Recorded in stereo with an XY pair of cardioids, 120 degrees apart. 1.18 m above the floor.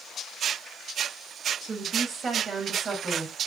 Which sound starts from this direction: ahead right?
A woman speaking, at 1.6 s.